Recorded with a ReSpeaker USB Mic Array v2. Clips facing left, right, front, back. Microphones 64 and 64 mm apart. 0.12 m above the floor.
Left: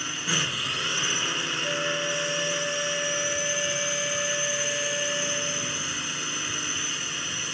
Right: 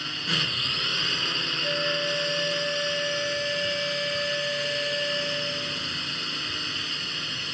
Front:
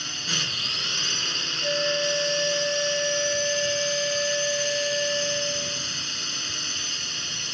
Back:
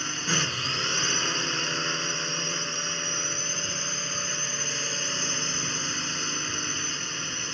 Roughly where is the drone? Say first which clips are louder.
Left 1 dB, back 3 dB; behind.